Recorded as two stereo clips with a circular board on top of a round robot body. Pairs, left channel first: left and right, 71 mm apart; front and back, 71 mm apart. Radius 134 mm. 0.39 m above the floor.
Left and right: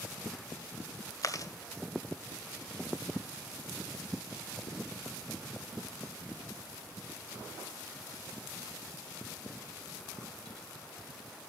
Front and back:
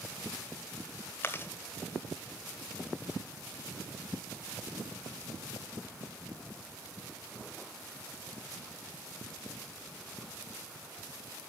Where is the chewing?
55° left, 1.9 m.